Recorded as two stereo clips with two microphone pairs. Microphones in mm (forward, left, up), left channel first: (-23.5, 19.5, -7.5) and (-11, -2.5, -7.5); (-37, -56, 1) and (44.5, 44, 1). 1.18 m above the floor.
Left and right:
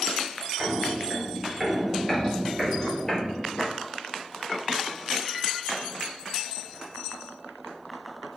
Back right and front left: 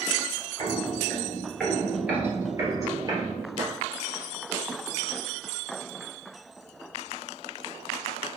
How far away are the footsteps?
About 1.3 m.